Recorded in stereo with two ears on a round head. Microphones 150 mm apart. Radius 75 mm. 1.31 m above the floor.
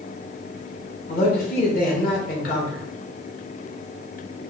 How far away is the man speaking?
About 1.7 m.